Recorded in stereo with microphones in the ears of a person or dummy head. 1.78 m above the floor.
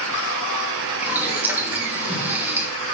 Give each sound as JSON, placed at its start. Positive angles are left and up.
{"t": 1.0, "sound": "boiling", "side_deg": -10, "distance_m": 3.0}